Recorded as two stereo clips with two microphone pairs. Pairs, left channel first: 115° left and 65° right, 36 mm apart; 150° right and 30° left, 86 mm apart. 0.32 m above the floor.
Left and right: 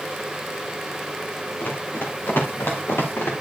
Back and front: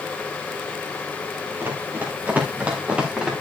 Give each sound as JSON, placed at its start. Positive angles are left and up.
{"t": 1.6, "sound": "running footsteps", "azimuth_deg": 90, "distance_m": 5.5}